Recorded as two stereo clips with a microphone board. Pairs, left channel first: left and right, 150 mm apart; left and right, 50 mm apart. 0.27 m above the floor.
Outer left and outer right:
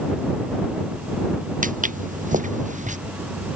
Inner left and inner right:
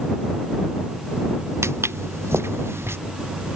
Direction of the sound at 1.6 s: 65° right (ahead or behind).